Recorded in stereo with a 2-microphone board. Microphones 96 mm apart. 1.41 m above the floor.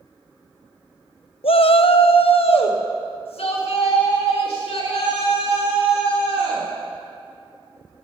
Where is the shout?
75° left (ahead or behind), 0.6 m; by 6.7 s 90° left, 4 m.